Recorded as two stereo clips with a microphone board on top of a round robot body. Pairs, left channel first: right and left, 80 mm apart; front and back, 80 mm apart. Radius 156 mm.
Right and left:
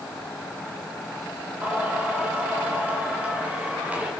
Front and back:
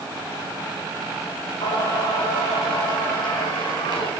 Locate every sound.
1.6 s singing: 15° left, 5 m